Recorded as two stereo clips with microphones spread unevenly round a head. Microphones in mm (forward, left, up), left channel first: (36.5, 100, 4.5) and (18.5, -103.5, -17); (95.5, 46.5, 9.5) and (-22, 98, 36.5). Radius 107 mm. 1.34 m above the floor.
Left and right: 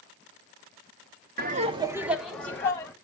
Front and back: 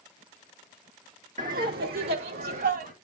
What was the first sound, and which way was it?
Laughter, 150° right.